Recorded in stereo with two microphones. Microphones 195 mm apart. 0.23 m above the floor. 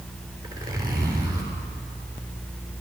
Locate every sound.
0.4 s a zipper: 15° right (ahead or behind), 3.5 m